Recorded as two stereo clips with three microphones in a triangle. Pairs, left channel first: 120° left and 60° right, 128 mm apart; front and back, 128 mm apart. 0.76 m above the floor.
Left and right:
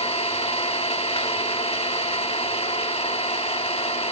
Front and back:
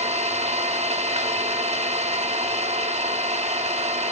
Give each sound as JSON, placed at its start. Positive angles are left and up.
{"t": 0.0, "sound": "an engine running", "azimuth_deg": 155, "distance_m": 1.2}